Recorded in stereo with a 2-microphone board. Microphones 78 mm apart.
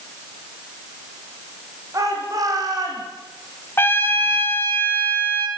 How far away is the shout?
About 9.5 m.